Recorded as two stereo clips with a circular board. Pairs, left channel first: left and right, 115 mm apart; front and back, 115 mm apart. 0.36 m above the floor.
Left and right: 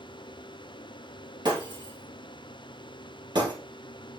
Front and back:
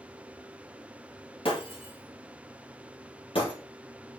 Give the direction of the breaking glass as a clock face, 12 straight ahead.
1 o'clock.